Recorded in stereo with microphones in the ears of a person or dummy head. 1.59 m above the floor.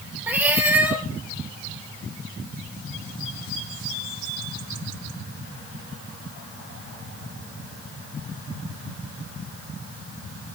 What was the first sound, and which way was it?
A cat meowing, 10° right (ahead or behind).